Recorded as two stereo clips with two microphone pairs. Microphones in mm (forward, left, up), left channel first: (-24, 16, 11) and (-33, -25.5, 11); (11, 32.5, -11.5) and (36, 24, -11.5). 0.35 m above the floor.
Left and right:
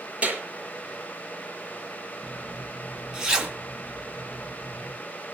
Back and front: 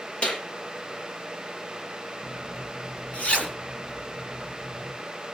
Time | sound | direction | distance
0.2 | a clap | 155° right | 8 m
2.2 | a zipper | straight behind | 3.5 m